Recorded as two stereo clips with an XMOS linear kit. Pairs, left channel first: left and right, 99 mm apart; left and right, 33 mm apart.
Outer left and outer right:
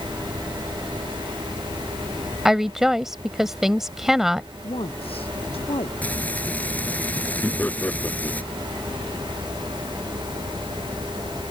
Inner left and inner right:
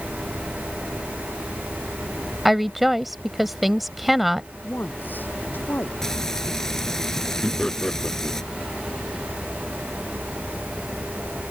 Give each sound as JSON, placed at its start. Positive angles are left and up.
{"t": 2.5, "sound": "a woman speaking", "side_deg": -5}
{"t": 4.6, "sound": "a woman speaking", "side_deg": 70}
{"t": 6.0, "sound": "frying", "side_deg": 15}
{"t": 7.4, "sound": "laughter", "side_deg": 15}